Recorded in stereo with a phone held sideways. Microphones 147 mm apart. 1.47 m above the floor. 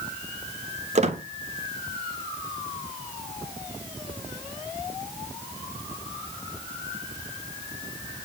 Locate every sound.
0.9 s a squeak: 50° right (ahead or behind), 0.7 m